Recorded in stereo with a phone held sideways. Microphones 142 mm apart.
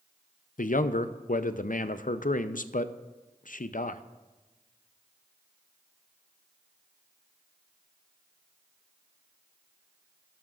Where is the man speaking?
70° left (ahead or behind), 0.5 m.